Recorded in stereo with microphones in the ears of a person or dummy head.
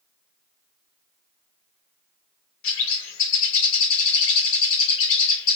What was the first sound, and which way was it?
A bird, 70° left (ahead or behind).